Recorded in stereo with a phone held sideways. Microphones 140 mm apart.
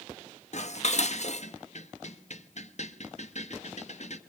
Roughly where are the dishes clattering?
Left.